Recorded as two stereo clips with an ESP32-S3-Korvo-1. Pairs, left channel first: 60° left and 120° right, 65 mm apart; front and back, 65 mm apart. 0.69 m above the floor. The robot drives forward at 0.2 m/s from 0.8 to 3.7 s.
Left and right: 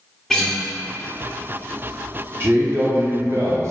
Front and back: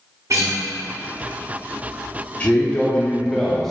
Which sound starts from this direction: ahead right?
A man speaking, at 2.4 s.